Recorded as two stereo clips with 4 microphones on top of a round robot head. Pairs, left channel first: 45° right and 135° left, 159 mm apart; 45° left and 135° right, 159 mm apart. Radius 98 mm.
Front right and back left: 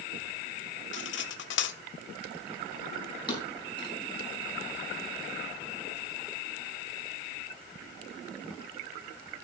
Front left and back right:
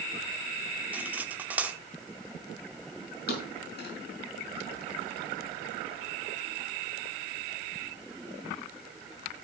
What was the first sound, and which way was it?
Cutlery clinking, 55° right.